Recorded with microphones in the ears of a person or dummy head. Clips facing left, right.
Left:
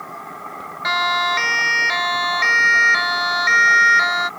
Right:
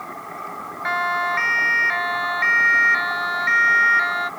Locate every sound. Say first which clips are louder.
0.8 s a siren: left 2 dB; 50° left (ahead or behind); by 4.3 s 60° left (ahead or behind)